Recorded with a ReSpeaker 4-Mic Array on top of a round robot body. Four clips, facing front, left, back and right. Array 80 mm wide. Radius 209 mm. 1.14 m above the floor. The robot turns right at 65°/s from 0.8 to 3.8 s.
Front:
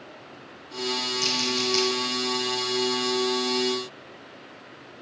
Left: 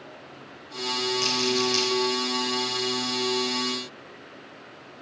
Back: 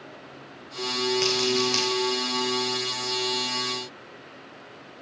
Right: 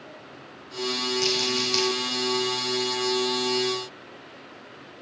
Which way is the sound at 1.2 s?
175° left.